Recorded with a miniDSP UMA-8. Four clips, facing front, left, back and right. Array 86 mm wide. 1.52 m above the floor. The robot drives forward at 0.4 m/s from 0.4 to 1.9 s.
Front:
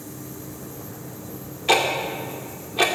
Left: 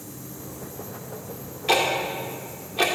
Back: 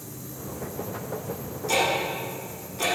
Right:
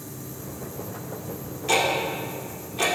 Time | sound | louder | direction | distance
1.7 | ticking | left 1 dB, front 4 dB | 20° left | 2 m